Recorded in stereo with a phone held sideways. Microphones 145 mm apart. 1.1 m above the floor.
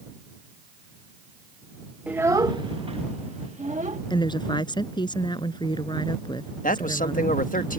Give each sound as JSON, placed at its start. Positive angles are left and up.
{"t": 2.1, "sound": "a child speaking", "side_deg": -10}
{"t": 4.1, "sound": "a woman speaking", "side_deg": 30}
{"t": 6.6, "sound": "a man speaking", "side_deg": 70}